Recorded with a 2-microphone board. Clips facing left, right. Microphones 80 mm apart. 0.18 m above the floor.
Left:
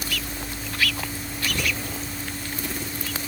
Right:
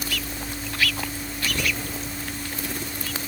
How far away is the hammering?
No hammering in this recording.